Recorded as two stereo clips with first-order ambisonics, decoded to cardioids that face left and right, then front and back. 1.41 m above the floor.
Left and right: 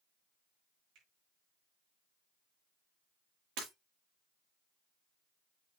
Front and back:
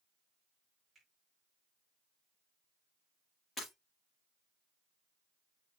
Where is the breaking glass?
75° right, 5.5 m.